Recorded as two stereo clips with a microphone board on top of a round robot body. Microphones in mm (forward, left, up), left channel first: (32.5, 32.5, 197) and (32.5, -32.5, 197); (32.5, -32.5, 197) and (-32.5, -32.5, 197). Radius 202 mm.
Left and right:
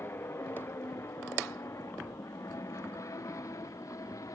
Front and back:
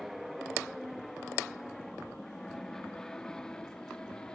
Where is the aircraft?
90° left; by 4.4 s 75° left.